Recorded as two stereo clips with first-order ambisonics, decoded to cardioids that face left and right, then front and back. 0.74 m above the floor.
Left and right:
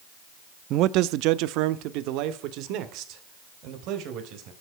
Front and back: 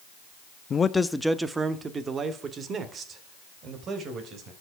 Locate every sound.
0.7 s a man speaking: 60° right, 0.6 m; by 4.5 s 125° right, 3 m